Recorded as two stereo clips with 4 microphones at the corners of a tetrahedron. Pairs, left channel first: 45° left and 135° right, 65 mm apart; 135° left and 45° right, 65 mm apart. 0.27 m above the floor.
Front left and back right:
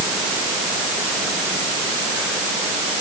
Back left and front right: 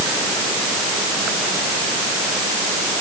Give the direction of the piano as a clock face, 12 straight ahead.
No piano in this recording.